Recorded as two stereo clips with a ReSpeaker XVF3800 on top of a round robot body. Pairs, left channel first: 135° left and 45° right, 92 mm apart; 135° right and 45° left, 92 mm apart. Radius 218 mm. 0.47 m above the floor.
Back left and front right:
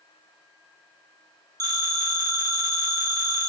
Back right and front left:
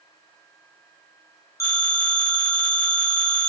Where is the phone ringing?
85° right, 1.1 m.